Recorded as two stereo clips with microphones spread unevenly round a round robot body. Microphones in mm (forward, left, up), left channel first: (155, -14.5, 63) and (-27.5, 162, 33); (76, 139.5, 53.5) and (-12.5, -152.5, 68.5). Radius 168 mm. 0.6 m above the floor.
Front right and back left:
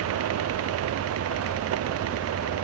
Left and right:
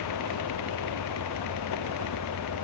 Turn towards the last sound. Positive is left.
No sound to turn to.